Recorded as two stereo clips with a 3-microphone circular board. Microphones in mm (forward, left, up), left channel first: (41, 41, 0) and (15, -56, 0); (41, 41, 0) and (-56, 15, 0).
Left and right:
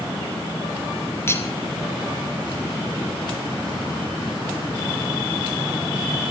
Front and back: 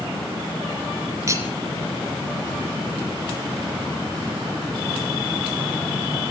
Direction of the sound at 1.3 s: 140° left.